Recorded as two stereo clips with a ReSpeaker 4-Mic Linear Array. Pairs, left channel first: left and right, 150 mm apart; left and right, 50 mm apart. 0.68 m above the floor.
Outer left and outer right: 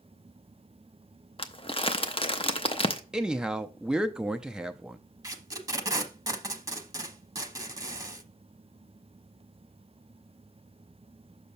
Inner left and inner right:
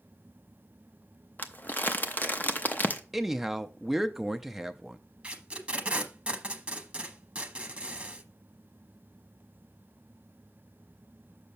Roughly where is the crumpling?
Left.